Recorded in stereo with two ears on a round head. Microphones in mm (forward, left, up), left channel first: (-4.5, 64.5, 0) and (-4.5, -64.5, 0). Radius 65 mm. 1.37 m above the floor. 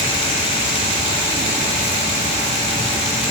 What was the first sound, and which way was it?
Only background noise.